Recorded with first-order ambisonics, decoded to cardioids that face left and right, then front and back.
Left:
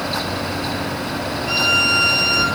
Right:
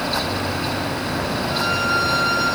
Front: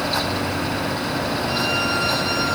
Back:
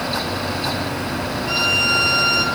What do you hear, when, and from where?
1.5 s a violin: 120° left, 7 m